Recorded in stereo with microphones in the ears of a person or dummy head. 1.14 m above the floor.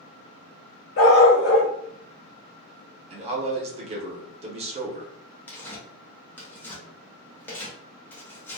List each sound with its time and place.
1.0 s a dog barking: 60° left (ahead or behind), 1.4 m
3.1 s a man speaking: 30° right (ahead or behind), 0.7 m
5.5 s tearing paper: 10° left (ahead or behind), 0.6 m